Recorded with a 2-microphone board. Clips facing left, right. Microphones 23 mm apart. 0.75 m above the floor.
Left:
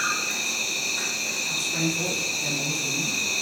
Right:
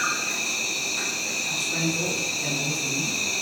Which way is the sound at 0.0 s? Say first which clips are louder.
Even; 15° right (ahead or behind).